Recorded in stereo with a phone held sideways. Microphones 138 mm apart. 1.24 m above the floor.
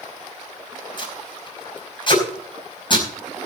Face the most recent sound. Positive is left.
turn(degrees=35)  # may be behind; listen again after turning